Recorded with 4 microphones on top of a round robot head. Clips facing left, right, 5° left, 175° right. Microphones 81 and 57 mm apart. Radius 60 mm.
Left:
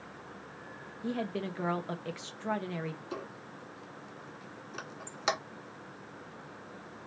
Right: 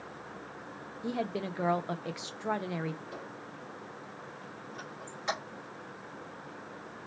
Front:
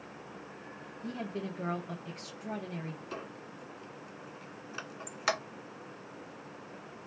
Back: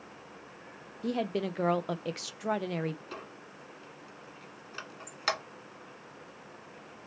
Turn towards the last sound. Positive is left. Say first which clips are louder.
# left 1 dB, front 2 dB
turn(degrees=90)